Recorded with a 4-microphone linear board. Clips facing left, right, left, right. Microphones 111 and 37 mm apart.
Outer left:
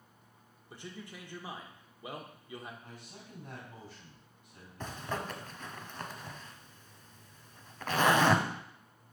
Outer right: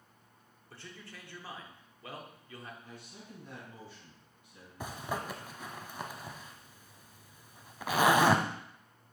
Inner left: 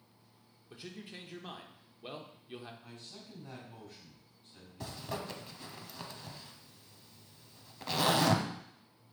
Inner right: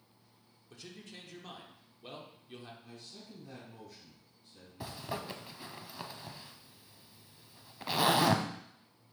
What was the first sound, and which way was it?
A man speaking, 15° left (ahead or behind).